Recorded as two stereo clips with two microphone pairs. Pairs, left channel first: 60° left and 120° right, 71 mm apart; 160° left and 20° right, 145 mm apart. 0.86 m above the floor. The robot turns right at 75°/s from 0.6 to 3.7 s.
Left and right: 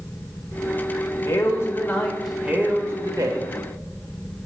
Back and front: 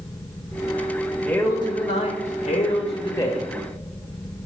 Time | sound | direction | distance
1.2 | a man speaking | 80° left | 1.6 m